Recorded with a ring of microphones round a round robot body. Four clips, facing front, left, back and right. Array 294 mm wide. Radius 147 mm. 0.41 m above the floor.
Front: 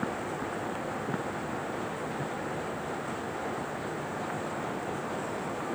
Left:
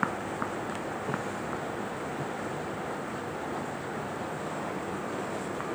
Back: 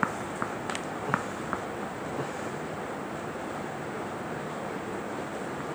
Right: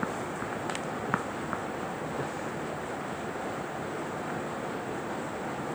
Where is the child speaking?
I don't hear a child speaking.